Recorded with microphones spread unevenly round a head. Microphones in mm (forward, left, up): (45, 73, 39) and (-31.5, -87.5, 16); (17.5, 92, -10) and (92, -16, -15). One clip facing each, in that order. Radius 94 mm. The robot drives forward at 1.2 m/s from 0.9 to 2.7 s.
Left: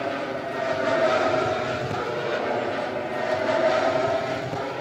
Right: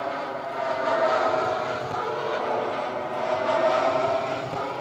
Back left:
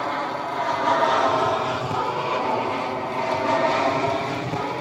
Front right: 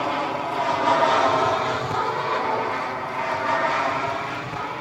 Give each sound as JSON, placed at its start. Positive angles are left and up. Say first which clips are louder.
{"t": 0.0, "sound": "an aircraft", "louder": "left 2 dB, front right 1 dB", "azimuth_deg": 15}